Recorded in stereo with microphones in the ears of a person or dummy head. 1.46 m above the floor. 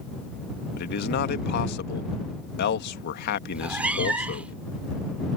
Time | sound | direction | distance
0.8 | a man speaking | 60° left (ahead or behind) | ?
3.5 | a cat meowing | 10° right (ahead or behind) | ?